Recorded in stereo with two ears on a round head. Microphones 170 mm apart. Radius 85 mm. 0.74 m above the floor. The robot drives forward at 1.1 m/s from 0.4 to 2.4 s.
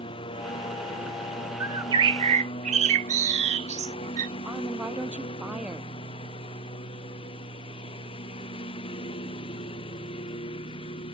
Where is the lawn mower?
25° left (ahead or behind); by 11.2 s 30° left (ahead or behind).